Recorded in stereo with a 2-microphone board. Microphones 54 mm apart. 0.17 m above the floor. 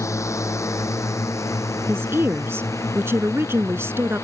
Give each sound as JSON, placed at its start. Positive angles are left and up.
{"t": 0.0, "sound": "a drone", "side_deg": 70}
{"t": 1.9, "sound": "a woman speaking", "side_deg": -50}